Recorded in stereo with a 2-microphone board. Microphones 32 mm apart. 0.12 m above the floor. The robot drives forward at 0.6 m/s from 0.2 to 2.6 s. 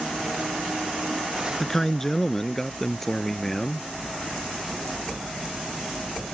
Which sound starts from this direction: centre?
A man speaking, at 1.6 s.